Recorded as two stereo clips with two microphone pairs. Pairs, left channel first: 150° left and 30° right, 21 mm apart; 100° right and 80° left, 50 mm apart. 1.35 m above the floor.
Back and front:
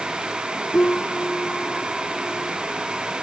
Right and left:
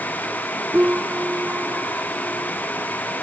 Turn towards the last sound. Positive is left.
turn(degrees=140)